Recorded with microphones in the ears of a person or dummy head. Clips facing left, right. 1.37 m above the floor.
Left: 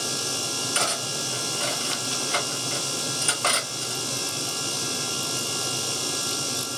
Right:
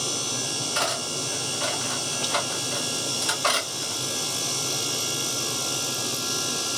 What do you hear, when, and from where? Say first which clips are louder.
0.8 s cutlery clinking: right 2 dB; 45° left (ahead or behind), 2 m